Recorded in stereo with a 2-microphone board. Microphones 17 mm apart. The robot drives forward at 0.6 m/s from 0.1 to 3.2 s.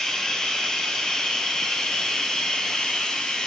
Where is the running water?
45° left (ahead or behind), 8 m; by 3.5 s 55° left (ahead or behind), 6.5 m.